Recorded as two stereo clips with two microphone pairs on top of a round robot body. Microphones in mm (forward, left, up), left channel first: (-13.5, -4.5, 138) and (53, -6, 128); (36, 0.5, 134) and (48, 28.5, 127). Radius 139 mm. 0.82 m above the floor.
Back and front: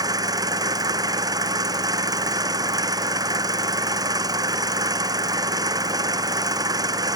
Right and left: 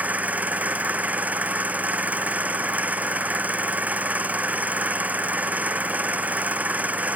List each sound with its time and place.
0.0 s an engine running: 25° left